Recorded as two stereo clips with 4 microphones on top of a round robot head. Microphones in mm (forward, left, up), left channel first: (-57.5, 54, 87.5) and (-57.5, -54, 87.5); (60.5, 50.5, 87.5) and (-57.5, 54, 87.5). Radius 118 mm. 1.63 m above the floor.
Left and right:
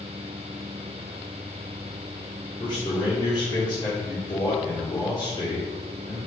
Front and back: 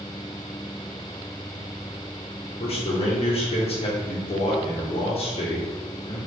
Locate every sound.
2.6 s a man speaking: 30° left, 2 m